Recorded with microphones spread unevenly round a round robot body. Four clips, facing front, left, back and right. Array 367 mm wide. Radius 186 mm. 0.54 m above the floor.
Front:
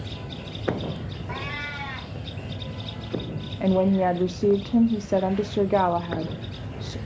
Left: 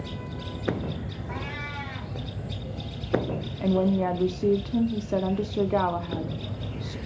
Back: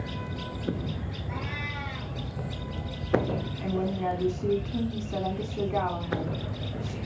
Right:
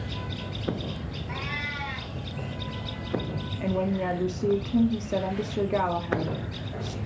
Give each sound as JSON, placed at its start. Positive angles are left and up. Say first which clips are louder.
{"t": 1.3, "sound": "a cat meowing", "louder": "right 1 dB, front 3 dB", "azimuth_deg": -5, "distance_m": 4.5}
{"t": 3.6, "sound": "a woman speaking", "louder": "left 4 dB, front 10 dB", "azimuth_deg": 20, "distance_m": 1.2}